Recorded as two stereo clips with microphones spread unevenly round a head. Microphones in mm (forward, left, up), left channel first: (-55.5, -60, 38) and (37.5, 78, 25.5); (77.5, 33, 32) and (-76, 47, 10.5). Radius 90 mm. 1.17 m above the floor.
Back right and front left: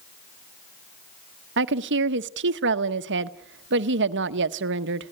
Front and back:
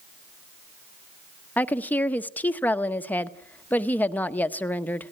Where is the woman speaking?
75° left, 1.0 m.